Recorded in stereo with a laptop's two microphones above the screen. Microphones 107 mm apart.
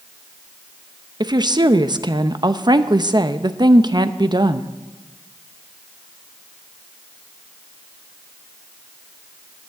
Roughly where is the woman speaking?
Right.